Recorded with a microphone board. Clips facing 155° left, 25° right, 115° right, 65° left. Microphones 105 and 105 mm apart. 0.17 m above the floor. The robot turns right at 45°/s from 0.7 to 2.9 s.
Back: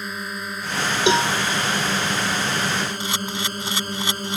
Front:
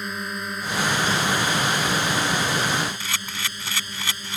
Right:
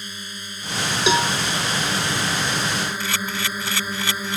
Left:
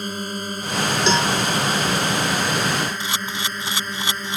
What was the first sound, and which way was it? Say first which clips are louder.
A drone: even, left 10 dB; 70° left.